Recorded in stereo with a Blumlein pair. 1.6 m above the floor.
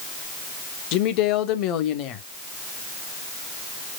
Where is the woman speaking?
40° left, 0.9 m.